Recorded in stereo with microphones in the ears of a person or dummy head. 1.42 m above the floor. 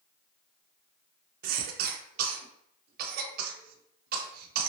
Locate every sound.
1.4 s a cough: 55° right (ahead or behind), 0.6 m